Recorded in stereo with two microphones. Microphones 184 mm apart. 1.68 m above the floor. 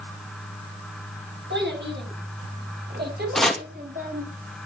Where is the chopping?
Centre (ahead or behind), 2.5 m.